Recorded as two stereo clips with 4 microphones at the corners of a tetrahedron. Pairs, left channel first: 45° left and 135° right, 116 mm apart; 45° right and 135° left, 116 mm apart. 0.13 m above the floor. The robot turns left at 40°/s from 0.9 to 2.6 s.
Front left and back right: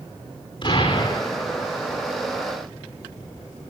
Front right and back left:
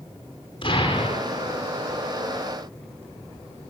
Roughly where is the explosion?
Ahead.